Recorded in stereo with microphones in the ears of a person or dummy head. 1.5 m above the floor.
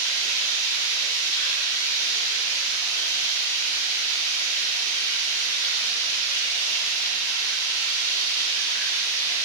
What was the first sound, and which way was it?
Running water, 20° left (ahead or behind).